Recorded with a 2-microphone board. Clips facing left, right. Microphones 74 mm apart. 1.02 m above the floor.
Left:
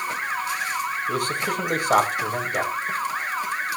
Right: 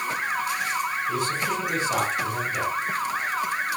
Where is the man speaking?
60° left (ahead or behind), 4 m.